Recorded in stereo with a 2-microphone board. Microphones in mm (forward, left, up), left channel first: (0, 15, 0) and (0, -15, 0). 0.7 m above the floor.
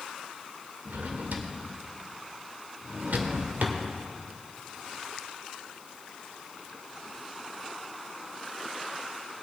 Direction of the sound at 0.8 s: 80° right.